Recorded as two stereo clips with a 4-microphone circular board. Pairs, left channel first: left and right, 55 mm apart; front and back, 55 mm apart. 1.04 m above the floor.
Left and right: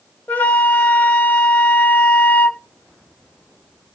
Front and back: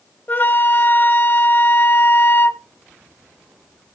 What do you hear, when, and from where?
0.3 s a flute: 40° left, 1.1 m